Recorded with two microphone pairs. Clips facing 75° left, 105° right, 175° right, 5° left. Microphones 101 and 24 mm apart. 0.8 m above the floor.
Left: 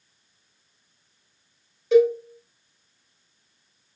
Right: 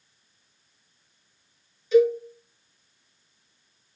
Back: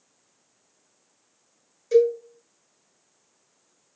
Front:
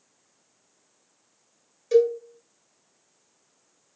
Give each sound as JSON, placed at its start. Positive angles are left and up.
{"t": 1.9, "sound": "a cowbell", "azimuth_deg": 80, "distance_m": 1.8}